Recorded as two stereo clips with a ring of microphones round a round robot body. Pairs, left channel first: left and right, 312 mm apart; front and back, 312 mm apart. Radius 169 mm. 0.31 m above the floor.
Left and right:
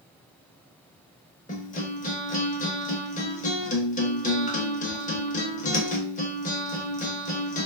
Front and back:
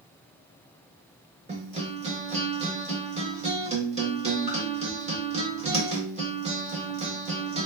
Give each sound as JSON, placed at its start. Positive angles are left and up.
{"t": 1.5, "sound": "a guitar", "azimuth_deg": 130, "distance_m": 0.7}